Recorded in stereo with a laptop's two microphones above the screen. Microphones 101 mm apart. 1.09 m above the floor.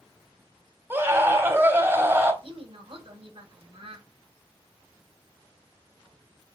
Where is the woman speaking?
60° right (ahead or behind), 4.5 m.